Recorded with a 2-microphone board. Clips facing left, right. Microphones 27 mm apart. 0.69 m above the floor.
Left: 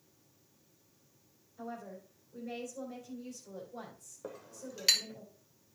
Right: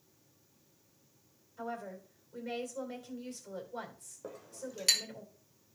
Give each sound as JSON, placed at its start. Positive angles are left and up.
{"t": 1.6, "sound": "a woman speaking", "side_deg": -65, "distance_m": 3.0}
{"t": 4.2, "sound": "a clink", "side_deg": 15, "distance_m": 1.5}